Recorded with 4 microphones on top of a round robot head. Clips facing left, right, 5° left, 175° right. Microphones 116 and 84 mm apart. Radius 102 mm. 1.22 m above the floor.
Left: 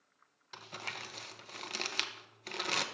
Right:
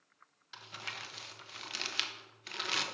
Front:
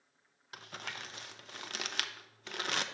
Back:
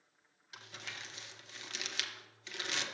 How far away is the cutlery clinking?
No cutlery clinking in this recording.